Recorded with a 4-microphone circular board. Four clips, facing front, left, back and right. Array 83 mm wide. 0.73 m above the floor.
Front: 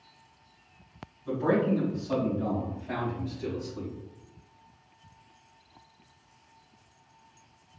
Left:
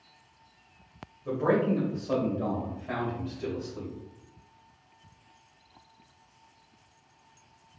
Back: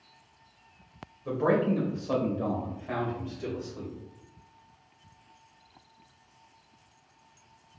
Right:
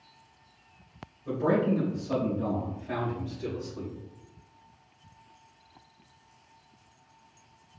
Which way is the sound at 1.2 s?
160° left.